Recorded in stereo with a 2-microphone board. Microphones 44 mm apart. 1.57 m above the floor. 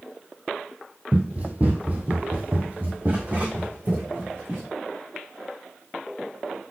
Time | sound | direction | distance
1.1 | running footsteps | 30° right (ahead or behind) | 2.0 m